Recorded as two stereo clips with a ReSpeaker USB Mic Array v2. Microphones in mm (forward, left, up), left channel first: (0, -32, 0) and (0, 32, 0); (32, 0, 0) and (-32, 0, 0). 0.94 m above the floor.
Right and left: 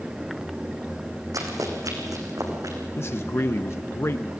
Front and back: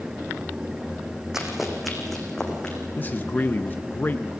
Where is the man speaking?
55° right, 0.6 m.